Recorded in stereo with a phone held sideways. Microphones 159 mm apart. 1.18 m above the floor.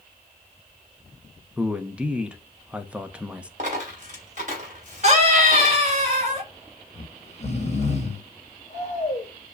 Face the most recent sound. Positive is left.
turn(degrees=45)  # may be behind; listen again after turning